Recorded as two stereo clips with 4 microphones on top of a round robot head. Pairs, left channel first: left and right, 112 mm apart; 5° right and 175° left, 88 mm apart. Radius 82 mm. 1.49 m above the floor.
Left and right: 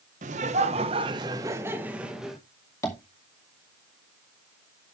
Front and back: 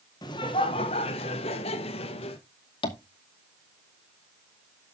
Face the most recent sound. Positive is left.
turn(degrees=20)